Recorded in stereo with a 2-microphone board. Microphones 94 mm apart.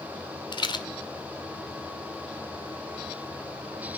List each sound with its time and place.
0.5 s a rattle: 55° left (ahead or behind), 1.8 m